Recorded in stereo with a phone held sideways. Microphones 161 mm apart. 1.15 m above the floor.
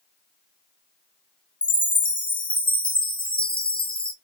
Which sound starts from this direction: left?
A chime, at 1.6 s.